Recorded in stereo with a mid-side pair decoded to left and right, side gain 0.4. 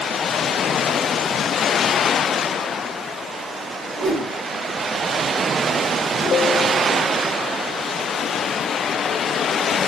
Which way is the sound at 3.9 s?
65° right.